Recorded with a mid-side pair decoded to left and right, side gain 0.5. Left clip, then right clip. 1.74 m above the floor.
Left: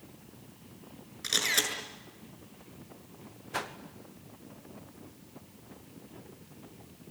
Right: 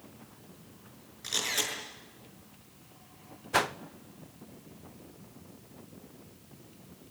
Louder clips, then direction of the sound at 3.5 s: Right 8 dB; 50° right.